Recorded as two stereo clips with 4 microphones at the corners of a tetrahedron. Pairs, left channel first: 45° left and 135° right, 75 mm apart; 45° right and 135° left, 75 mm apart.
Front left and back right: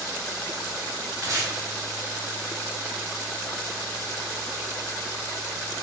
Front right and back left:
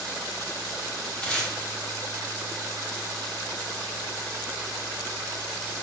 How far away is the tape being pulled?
About 1.4 m.